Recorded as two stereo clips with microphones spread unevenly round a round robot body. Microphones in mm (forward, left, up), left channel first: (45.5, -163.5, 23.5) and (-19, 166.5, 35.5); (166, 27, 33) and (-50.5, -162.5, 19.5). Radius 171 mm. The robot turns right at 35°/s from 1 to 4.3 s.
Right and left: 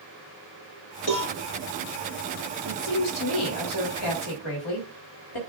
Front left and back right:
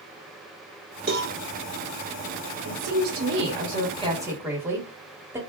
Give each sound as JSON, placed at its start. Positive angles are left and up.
{"t": 1.1, "sound": "a cowbell", "azimuth_deg": -85, "distance_m": 2.5}
{"t": 2.6, "sound": "a woman speaking", "azimuth_deg": -115, "distance_m": 2.0}